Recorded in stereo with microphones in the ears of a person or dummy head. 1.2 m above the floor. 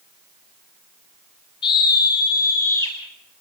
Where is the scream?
25° left (ahead or behind), 7.5 m; by 3.0 s 15° left (ahead or behind), 8.5 m.